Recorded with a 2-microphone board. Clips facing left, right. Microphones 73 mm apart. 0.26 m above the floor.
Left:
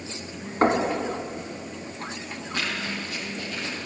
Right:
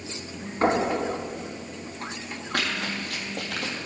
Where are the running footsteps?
60° right (ahead or behind), 4.5 m; by 3.9 s 65° right (ahead or behind), 4 m.